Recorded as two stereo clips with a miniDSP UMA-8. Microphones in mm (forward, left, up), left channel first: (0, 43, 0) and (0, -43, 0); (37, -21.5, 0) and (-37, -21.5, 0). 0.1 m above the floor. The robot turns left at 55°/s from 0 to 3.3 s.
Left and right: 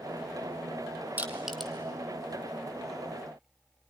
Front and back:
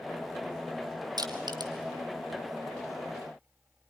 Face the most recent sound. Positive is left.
turn(degrees=85)